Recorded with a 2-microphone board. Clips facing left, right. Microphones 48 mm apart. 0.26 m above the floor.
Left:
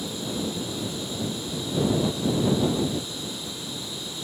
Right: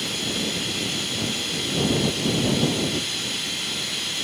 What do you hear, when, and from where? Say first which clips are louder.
0.0 s running water: right 3 dB; 75° right (ahead or behind)